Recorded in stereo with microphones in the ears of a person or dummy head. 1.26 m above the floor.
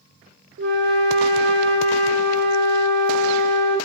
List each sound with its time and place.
0.6 s a flute: 50° right (ahead or behind), 0.6 m